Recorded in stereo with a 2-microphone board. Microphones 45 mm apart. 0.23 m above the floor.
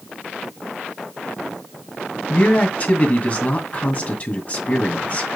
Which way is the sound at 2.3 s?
35° left (ahead or behind).